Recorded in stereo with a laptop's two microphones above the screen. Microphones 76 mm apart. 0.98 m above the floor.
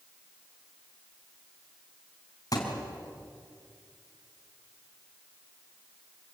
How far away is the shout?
No shout in this recording.